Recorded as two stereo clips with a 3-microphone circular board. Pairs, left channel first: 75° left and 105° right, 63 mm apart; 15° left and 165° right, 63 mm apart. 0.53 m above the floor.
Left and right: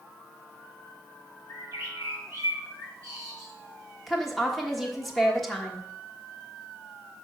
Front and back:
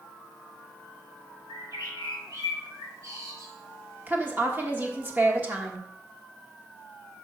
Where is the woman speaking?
165° left, 1.3 m.